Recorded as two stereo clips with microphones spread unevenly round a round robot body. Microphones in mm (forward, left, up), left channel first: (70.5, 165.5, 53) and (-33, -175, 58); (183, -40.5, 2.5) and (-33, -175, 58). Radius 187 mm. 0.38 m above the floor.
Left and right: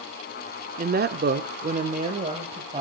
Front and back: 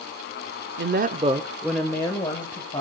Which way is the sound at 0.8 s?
155° right.